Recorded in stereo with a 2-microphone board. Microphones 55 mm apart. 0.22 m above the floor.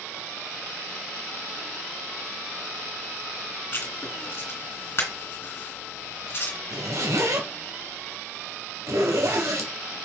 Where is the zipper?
70° right (ahead or behind), 3 m.